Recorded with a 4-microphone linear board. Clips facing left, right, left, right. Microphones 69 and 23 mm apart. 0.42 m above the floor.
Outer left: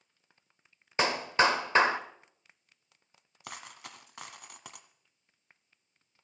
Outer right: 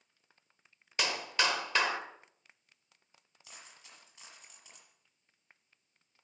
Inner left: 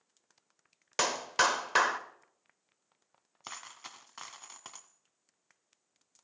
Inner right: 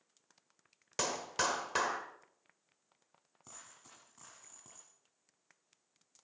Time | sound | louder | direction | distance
1.0 | a clap | outer left 7 dB, inner left 7 dB | 35° left (ahead or behind) | 1.4 m
3.4 | a dropped coin | outer left 11 dB, inner left 12 dB | 80° left | 1.5 m